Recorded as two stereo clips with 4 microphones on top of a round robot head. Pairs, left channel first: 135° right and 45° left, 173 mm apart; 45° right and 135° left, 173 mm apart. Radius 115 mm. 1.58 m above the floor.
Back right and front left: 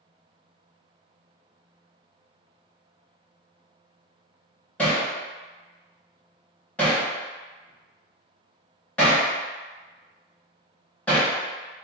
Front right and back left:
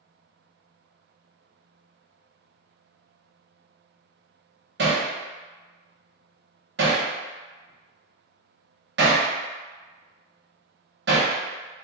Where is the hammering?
145° left, 0.8 m.